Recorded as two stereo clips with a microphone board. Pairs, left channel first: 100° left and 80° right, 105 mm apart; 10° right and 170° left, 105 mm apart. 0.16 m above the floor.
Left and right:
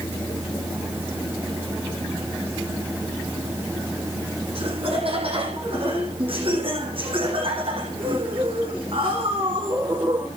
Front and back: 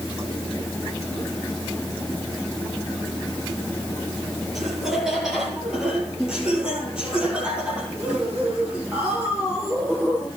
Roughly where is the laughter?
Right.